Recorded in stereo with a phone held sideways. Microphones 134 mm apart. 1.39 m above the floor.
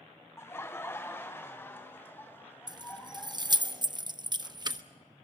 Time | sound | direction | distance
0.4 | laughter | 20° left (ahead or behind) | 1.0 m
2.7 | keys jangling | 30° right (ahead or behind) | 0.7 m